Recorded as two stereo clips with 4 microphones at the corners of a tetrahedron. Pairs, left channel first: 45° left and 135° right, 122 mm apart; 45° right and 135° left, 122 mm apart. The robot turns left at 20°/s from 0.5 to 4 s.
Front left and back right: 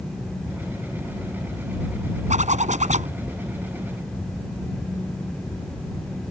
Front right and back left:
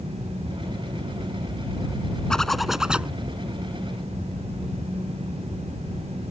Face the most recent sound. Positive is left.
turn(degrees=-165)